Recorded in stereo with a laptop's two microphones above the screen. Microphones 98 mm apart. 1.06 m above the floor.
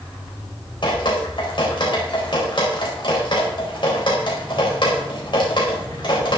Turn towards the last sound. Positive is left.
turn(degrees=55)  # may be behind; listen again after turning